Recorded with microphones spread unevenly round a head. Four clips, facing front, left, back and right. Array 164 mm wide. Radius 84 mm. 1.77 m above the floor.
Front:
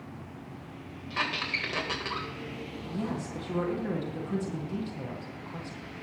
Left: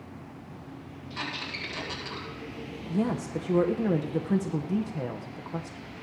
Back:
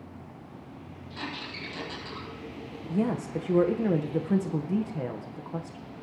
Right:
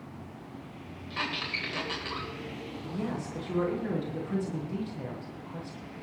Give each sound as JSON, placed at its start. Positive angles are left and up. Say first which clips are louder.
{"t": 1.1, "sound": "a squeak", "louder": "right 2 dB, front 5 dB", "azimuth_deg": -5, "distance_m": 3.0}
{"t": 2.9, "sound": "a woman speaking", "louder": "left 7 dB, back 7 dB", "azimuth_deg": 140, "distance_m": 1.3}